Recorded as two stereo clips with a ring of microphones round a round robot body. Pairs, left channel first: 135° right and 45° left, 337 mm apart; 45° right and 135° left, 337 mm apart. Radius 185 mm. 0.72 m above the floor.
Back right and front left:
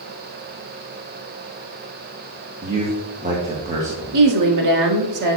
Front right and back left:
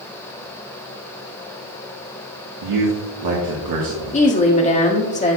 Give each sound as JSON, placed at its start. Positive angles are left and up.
{"t": 2.6, "sound": "a man speaking", "azimuth_deg": 115, "distance_m": 1.4}
{"t": 4.1, "sound": "a woman speaking", "azimuth_deg": 25, "distance_m": 1.8}